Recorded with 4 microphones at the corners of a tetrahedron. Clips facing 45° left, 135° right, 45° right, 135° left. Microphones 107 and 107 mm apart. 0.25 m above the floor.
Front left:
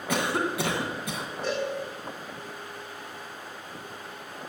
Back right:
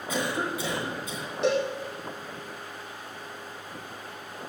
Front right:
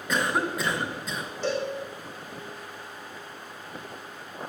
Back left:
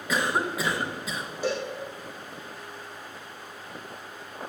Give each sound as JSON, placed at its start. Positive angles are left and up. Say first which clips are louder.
{"t": 0.1, "sound": "a cough", "louder": "front left 2 dB, even", "azimuth_deg": 45, "distance_m": 2.5}
{"t": 1.4, "sound": "a cowbell", "louder": "back right 5 dB, front right 1 dB", "azimuth_deg": -145, "distance_m": 4.5}